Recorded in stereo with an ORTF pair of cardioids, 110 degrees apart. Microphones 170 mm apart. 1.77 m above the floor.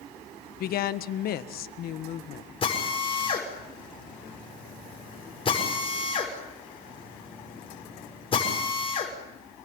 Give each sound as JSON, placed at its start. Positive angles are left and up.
{"t": 0.6, "sound": "a woman speaking", "azimuth_deg": 65, "distance_m": 1.5}
{"t": 2.6, "sound": "a drill", "azimuth_deg": 35, "distance_m": 6.5}